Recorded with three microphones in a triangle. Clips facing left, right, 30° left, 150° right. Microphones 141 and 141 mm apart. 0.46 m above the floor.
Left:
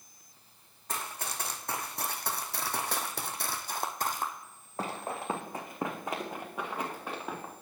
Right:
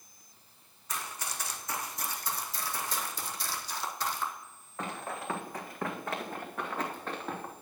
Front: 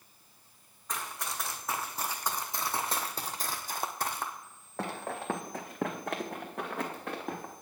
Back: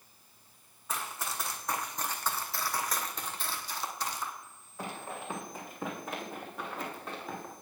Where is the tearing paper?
I don't hear tearing paper.